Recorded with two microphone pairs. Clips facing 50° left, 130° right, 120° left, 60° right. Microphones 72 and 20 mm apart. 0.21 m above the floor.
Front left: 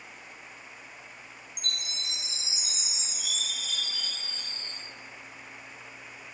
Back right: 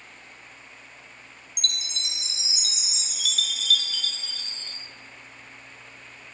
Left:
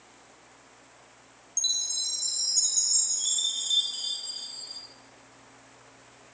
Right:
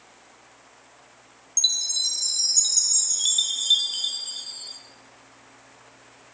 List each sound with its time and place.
1.6 s a chime: 115° right, 1.4 m